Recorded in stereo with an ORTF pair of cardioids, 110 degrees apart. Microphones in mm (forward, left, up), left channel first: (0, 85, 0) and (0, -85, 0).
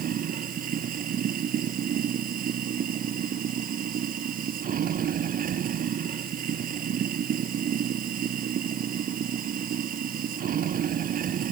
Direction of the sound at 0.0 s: 55° right.